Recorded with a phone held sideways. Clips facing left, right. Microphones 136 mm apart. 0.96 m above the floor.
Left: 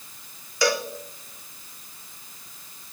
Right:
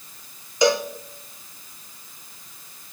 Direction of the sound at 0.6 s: 20° right (ahead or behind).